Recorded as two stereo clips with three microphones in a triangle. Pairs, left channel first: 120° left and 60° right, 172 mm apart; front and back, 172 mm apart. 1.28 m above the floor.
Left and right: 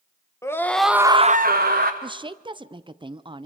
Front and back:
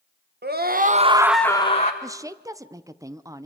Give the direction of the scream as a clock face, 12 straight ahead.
6 o'clock.